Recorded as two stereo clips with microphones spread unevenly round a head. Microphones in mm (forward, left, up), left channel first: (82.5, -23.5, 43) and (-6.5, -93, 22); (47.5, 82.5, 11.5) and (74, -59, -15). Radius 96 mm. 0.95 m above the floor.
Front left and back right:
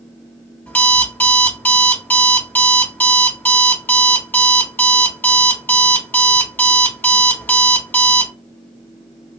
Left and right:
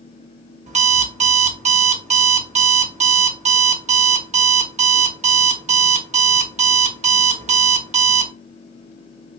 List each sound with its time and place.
0.7 s an alarm clock: 35° right, 1.0 m